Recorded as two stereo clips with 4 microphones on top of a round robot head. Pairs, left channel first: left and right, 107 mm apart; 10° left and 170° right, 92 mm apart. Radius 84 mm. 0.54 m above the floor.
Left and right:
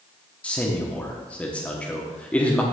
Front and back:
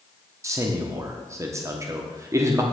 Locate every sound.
0.4 s a man speaking: 160° left, 1.0 m